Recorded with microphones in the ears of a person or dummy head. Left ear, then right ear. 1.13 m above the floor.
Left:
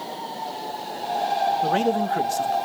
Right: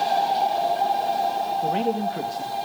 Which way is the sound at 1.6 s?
45° left (ahead or behind).